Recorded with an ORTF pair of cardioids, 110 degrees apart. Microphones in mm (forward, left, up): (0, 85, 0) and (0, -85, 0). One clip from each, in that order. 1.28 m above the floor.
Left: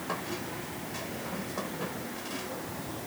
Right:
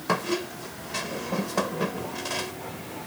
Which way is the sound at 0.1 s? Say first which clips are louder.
Right 10 dB; 65° right.